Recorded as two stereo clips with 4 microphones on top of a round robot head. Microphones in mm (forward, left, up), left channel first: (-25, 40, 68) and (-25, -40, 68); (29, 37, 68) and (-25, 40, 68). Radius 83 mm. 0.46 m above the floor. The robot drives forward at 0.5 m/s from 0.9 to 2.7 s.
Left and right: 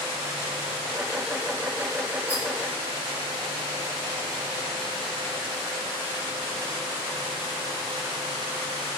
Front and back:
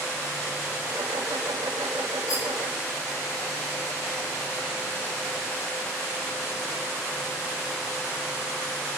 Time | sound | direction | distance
2.3 | a rattle | 15° right | 3.5 m